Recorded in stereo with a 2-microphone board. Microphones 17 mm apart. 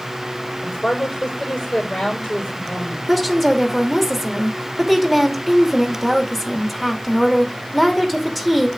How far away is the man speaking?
About 5.5 m.